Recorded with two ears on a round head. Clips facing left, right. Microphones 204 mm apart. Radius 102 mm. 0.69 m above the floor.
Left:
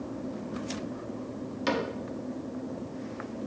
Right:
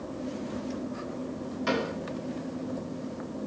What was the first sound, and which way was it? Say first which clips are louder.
A cupboard door: even; 50° left (ahead or behind).